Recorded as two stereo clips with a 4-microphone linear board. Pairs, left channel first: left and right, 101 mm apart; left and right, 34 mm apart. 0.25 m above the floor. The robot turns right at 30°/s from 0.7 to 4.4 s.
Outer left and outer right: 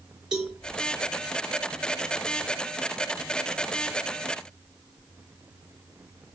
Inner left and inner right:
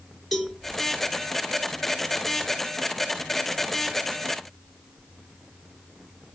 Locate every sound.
0.3 s a cowbell: 5° right (ahead or behind), 4 m